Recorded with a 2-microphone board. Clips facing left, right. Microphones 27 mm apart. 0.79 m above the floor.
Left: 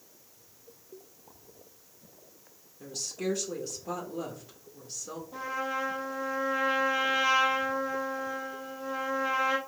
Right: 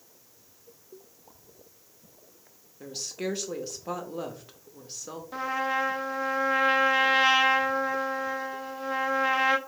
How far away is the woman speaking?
About 0.8 m.